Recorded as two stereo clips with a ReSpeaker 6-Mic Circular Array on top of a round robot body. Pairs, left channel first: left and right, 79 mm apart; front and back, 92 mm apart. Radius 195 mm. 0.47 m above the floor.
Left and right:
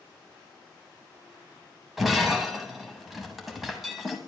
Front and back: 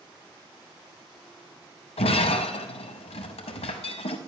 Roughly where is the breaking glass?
Ahead.